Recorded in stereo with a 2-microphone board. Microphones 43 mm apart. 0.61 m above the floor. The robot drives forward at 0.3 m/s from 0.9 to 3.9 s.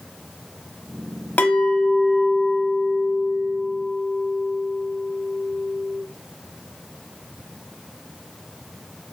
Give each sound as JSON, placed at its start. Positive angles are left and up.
{"t": 1.4, "sound": "a clink", "side_deg": 45, "distance_m": 1.1}